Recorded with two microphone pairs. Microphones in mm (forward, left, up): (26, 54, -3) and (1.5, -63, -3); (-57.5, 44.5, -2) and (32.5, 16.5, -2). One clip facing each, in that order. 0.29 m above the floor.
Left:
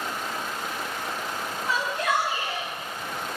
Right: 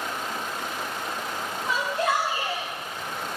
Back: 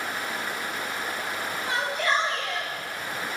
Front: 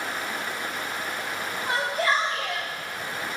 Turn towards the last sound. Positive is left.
turn(degrees=-65)